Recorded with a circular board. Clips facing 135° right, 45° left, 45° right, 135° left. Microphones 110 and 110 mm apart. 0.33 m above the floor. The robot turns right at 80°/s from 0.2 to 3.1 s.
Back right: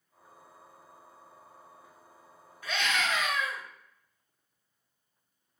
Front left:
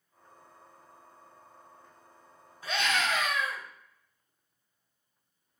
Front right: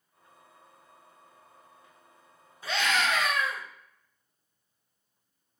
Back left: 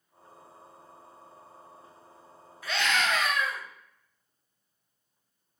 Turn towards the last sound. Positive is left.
turn(degrees=35)